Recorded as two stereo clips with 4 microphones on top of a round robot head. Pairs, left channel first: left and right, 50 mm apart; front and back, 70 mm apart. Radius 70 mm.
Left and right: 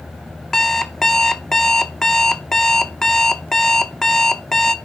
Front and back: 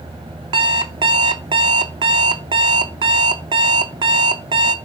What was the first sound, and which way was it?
An alarm clock, 170° left.